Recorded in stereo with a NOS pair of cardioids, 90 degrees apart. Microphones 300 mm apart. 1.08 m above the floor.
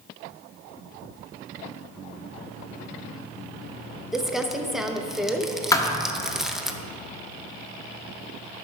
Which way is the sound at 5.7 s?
10° left.